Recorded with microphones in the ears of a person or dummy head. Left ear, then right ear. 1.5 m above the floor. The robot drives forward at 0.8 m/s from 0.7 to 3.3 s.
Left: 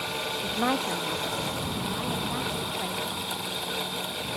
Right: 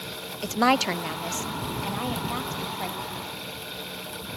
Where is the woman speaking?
70° right (ahead or behind), 0.6 m; by 3.3 s 15° right (ahead or behind), 2.5 m.